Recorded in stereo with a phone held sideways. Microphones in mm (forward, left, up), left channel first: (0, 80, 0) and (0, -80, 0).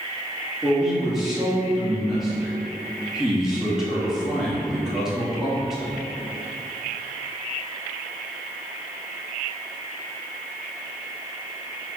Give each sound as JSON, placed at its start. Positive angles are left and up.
{"t": 0.6, "sound": "a man speaking", "side_deg": -5, "distance_m": 2.5}